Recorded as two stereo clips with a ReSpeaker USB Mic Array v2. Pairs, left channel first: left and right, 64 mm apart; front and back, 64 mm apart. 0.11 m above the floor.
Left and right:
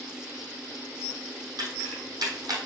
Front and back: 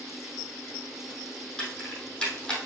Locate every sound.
1.6 s keys jangling: 80° right, 3.5 m